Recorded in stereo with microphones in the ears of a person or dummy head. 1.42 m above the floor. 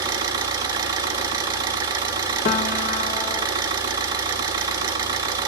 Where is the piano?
40° left (ahead or behind), 0.9 m.